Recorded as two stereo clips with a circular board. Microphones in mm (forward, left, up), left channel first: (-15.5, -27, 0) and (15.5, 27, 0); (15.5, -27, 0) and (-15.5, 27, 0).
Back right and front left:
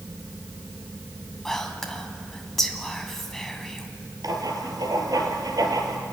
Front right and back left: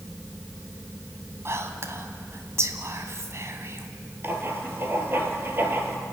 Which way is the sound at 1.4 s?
155° left.